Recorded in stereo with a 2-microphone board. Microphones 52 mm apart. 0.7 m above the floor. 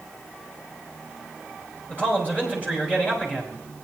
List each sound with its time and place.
1.9 s a man speaking: 25° left (ahead or behind), 4.5 m